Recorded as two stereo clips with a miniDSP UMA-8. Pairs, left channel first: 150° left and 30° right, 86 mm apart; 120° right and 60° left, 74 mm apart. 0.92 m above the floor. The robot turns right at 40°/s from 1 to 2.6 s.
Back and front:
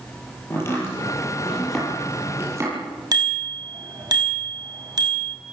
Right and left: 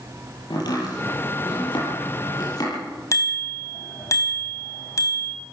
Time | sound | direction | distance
0.5 | chopping | 150° right | 9.5 m
3.1 | a bicycle bell | 70° right | 4.5 m